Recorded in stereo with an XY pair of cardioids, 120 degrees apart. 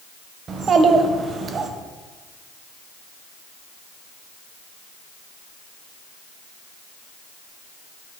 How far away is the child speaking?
About 0.7 m.